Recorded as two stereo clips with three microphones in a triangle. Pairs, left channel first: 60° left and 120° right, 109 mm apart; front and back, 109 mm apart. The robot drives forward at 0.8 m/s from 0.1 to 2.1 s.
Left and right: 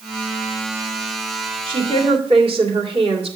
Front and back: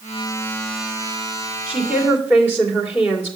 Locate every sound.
1.7 s a woman speaking: 100° right, 2.5 m; by 3.4 s 110° right, 2.5 m